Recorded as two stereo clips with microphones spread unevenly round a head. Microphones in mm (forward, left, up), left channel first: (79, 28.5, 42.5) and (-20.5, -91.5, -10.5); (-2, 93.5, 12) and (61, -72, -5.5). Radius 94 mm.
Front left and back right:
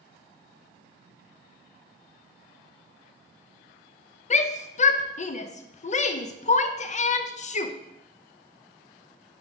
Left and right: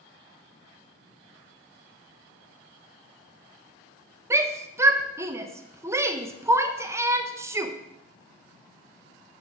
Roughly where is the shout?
Ahead.